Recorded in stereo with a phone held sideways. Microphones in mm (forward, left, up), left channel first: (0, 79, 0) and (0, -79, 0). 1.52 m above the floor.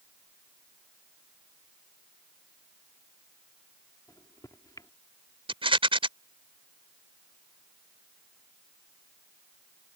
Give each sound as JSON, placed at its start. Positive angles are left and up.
{"t": 4.1, "sound": "a microwave", "side_deg": 25}
{"t": 5.5, "sound": "a rattle", "side_deg": -35}